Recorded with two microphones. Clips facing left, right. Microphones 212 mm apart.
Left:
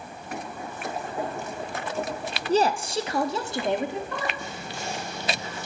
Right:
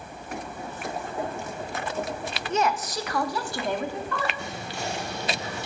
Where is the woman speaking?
35° left (ahead or behind), 0.7 m; by 4.3 s 20° left (ahead or behind), 2.5 m.